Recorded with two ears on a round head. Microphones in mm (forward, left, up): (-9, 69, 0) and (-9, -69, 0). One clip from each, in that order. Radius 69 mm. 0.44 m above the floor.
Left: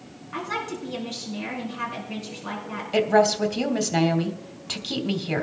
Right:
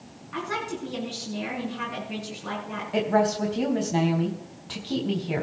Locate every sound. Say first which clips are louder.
0.3 s a woman speaking: left 1 dB; 10° left (ahead or behind), 4.5 m
2.9 s a woman speaking: left 4 dB; 70° left (ahead or behind), 2.5 m